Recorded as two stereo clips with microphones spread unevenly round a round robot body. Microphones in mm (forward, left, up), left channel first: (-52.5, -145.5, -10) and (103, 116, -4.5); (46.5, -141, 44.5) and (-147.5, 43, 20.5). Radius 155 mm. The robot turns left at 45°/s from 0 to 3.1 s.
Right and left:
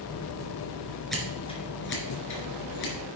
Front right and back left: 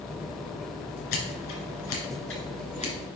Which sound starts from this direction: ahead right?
Scissors, at 1.1 s.